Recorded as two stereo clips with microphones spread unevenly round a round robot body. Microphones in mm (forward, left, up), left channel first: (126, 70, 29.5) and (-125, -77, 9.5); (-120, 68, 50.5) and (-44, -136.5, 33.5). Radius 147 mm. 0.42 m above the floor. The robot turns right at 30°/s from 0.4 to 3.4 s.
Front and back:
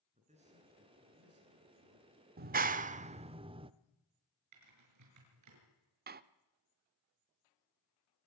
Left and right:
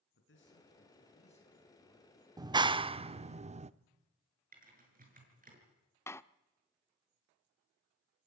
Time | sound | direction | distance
0.1 | a man speaking | 140° left | 6 m
2.4 | a clap | 125° right | 0.7 m
4.5 | typing on a keyboard | 120° right | 6.5 m
6.1 | a door slam | 170° right | 0.7 m